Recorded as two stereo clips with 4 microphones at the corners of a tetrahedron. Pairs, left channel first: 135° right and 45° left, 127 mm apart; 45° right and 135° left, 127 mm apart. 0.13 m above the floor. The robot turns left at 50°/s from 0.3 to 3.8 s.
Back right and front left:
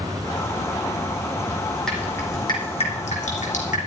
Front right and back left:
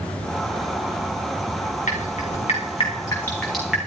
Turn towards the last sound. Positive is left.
turn(degrees=-145)